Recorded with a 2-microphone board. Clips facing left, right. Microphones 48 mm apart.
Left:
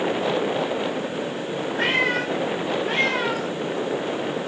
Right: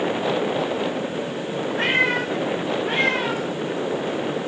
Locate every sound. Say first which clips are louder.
1.8 s a cat meowing: right 1 dB; 30° right (ahead or behind), 5 m; by 3.5 s 20° right (ahead or behind), 5 m